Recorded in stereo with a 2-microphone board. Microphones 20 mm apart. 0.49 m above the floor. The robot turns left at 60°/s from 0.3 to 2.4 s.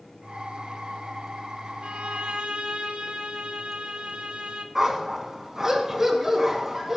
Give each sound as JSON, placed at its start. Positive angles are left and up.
{"t": 1.8, "sound": "a violin", "azimuth_deg": -75, "distance_m": 1.9}
{"t": 4.8, "sound": "a dog barking", "side_deg": -25, "distance_m": 2.0}